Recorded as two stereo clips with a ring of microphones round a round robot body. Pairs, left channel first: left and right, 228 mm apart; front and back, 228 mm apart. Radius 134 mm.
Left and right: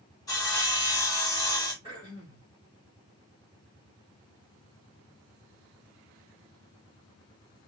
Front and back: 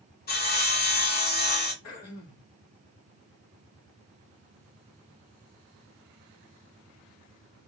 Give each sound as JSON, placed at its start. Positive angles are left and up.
{"t": 0.3, "sound": "sawing", "azimuth_deg": 25, "distance_m": 1.7}
{"t": 1.8, "sound": "throat clearing", "azimuth_deg": -20, "distance_m": 2.5}